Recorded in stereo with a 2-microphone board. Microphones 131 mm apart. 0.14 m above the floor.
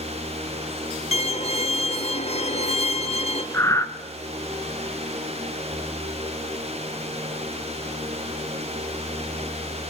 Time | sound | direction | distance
1.1 | a violin | 55° left (ahead or behind) | 1.8 m
3.5 | breathing | 20° left (ahead or behind) | 1.8 m